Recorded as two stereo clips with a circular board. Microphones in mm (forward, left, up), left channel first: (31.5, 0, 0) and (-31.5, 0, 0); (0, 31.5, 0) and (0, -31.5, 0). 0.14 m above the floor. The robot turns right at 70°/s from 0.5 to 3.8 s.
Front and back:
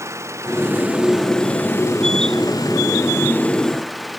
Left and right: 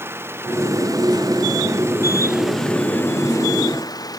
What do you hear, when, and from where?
0.0 s an engine running: 140° right; by 4.2 s 90° left